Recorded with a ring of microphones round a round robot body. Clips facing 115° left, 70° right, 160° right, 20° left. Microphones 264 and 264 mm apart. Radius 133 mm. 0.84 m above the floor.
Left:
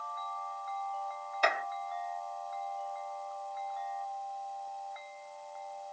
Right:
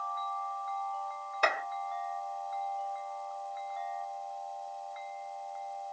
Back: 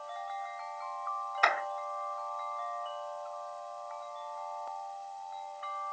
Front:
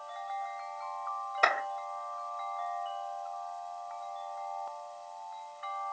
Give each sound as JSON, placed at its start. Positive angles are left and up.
{"t": 1.4, "sound": "a clap", "azimuth_deg": -30, "distance_m": 3.0}